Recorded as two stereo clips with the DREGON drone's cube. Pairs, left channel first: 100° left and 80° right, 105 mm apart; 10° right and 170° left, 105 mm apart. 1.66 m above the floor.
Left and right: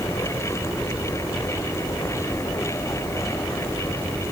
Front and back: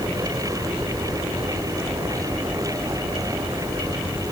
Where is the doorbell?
No doorbell in this recording.